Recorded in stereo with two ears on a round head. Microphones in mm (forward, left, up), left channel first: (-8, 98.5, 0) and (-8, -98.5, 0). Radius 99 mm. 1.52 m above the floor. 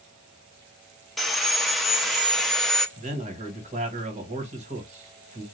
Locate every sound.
1.2 s sawing: centre (ahead or behind), 0.5 m
3.0 s a man speaking: 30° right (ahead or behind), 1.2 m